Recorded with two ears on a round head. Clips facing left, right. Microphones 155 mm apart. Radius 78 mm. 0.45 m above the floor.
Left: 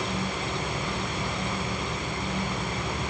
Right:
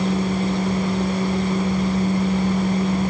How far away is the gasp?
No gasp in this recording.